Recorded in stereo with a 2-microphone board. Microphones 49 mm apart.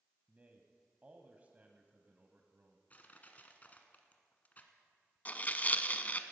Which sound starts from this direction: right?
A man speaking, at 0.3 s.